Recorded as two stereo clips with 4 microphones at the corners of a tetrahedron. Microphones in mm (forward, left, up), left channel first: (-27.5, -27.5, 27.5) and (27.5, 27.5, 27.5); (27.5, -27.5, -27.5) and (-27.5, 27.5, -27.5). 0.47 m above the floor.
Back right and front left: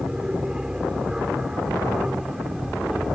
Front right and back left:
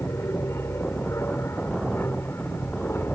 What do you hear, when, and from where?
0.0 s an aircraft: 30° right; by 3.2 s 35° right